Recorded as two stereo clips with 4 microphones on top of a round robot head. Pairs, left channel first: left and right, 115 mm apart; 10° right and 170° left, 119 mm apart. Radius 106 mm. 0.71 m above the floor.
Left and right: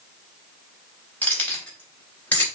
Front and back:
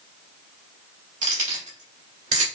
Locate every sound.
1.2 s keys jangling: 165° left, 3.5 m